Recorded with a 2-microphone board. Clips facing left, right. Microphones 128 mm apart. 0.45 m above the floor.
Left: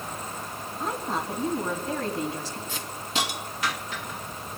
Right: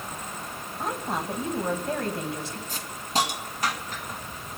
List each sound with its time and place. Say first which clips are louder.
0.8 s a woman speaking: even; 60° right (ahead or behind), 3 m
2.7 s a hiss: right 5 dB; 40° right (ahead or behind), 2.0 m